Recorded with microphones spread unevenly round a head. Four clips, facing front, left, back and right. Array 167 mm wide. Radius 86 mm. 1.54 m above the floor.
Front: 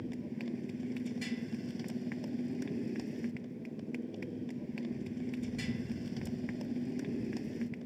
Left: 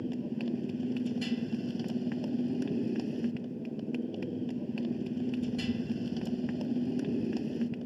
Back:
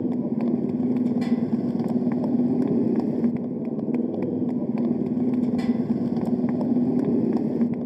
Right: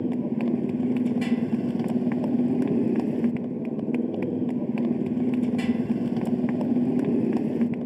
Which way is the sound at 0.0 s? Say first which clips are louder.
Right 9 dB, back 16 dB; 145° right.